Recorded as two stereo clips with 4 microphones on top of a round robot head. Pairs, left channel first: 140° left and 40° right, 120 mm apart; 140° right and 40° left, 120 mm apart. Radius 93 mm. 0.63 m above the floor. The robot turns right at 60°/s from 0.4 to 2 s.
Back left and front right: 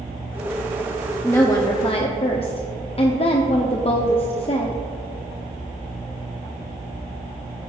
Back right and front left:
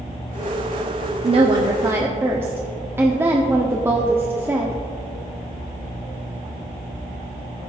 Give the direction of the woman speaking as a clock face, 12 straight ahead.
10 o'clock.